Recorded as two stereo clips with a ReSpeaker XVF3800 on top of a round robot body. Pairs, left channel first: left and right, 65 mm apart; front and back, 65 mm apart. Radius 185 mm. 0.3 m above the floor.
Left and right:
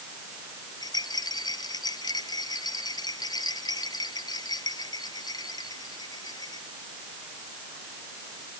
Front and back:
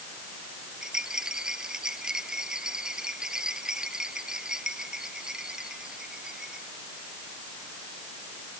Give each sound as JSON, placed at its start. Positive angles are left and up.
{"t": 0.8, "sound": "a rattle", "azimuth_deg": 100}